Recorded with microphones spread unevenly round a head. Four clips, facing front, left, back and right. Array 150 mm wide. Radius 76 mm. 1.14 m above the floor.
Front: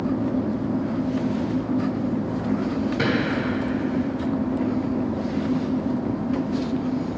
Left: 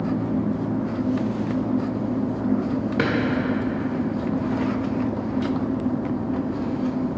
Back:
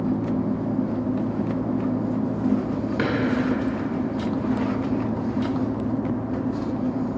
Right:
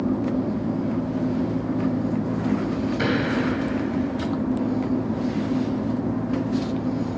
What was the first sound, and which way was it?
A drawer, 95° left.